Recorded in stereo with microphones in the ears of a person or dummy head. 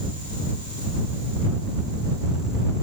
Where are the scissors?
No scissors in this recording.